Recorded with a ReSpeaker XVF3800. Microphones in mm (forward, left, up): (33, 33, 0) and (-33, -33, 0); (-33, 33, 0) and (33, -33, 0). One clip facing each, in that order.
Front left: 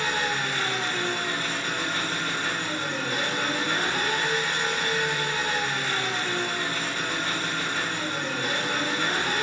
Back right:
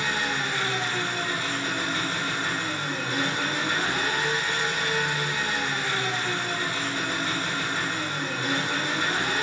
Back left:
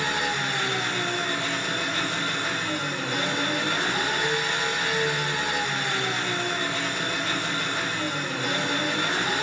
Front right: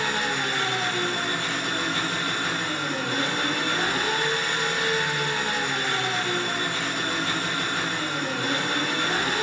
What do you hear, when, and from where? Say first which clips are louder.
0.0 s an engine running: front left 1 dB, even; 60° right, 2 m